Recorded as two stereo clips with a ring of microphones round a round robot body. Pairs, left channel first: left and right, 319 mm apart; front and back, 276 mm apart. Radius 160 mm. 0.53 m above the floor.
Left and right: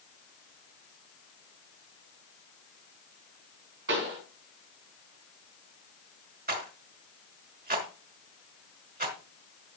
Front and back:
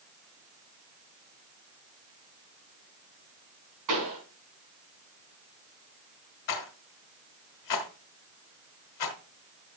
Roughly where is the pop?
Behind right.